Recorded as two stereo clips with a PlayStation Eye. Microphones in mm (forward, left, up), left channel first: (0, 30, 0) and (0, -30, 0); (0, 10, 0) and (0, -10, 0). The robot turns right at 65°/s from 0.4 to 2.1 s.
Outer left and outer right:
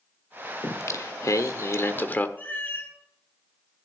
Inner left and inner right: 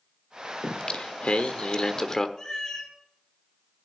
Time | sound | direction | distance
0.6 | singing | 50° left | 1.2 m
2.4 | a cat meowing | 30° left (ahead or behind) | 5.5 m